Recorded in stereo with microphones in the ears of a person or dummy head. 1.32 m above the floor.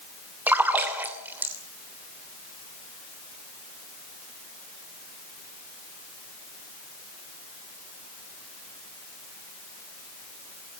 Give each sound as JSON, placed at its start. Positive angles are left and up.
{"t": 0.5, "sound": "a splash", "side_deg": -10, "distance_m": 3.0}